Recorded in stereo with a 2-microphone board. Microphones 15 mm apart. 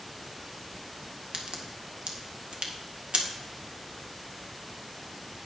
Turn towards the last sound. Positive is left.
turn(degrees=-80)